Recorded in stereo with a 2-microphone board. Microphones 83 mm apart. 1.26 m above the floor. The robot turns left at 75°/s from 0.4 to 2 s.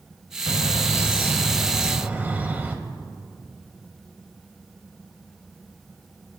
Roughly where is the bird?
Left.